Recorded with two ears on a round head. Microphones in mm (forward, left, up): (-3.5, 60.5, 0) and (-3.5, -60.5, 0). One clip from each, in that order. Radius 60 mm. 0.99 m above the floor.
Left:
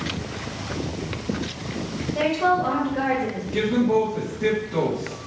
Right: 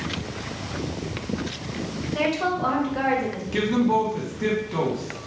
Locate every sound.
2.1 s a woman speaking: 65° right (ahead or behind), 1.2 m
3.5 s a man speaking: 55° right (ahead or behind), 1.3 m